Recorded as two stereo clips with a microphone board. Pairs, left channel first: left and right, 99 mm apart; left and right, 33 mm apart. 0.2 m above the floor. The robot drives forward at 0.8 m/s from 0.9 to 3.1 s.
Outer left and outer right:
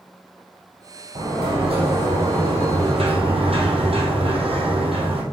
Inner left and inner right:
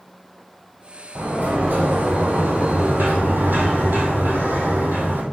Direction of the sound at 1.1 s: 65° right (ahead or behind).